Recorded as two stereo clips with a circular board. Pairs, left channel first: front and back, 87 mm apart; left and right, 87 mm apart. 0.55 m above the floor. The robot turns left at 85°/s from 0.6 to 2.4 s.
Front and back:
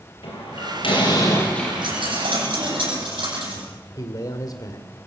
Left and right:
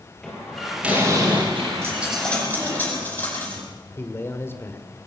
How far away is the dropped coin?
About 9 m.